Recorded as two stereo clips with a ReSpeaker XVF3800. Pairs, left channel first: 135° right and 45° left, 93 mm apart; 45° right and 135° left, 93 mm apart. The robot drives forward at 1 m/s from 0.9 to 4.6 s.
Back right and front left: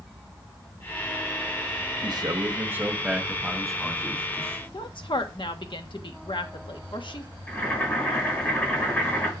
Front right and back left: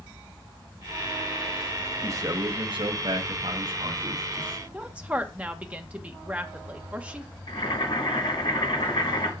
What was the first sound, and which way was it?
A man speaking, 80° left.